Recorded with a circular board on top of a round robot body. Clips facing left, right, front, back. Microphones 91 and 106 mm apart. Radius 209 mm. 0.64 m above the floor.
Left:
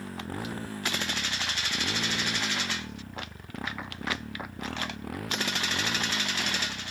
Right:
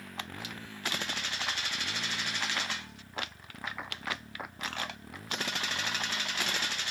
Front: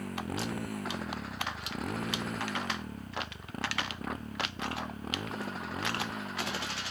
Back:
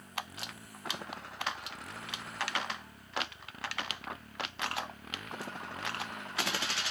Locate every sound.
0.0 s a motorcycle: 30° left; by 6.9 s 65° left